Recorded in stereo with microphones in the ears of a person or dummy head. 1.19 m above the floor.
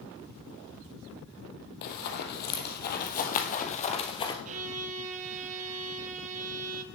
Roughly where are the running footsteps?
Left.